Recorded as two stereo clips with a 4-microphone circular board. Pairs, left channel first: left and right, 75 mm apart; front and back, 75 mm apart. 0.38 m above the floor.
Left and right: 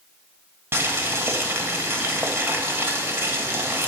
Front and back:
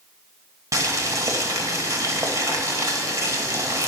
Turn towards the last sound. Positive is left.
turn(degrees=-145)